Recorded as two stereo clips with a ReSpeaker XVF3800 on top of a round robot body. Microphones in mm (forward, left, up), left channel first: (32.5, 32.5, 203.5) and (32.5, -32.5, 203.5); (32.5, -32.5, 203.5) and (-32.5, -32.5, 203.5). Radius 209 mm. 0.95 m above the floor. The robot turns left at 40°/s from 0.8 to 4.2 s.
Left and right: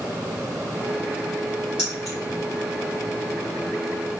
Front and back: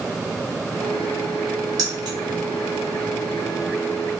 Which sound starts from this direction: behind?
Keys jangling, at 1.8 s.